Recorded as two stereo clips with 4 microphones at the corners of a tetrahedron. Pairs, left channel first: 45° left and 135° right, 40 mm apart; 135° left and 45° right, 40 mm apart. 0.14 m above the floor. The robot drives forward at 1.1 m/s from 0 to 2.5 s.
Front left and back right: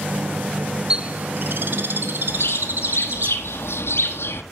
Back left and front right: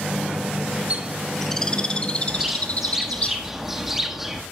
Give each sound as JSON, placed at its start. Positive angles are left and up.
{"t": 0.9, "sound": "a bird", "azimuth_deg": -75, "distance_m": 0.6}
{"t": 2.3, "sound": "a bird", "azimuth_deg": 30, "distance_m": 1.5}